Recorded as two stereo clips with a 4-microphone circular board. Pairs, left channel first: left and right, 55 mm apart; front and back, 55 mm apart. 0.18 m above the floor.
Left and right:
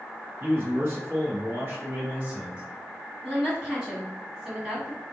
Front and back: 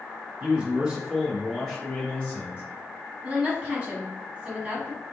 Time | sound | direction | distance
0.4 | a man speaking | 120° right | 1.7 m
3.2 | a woman speaking | 145° right | 1.3 m